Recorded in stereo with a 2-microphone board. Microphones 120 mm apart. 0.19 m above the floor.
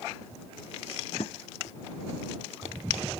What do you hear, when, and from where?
1.2 s a drawer: 60° left (ahead or behind)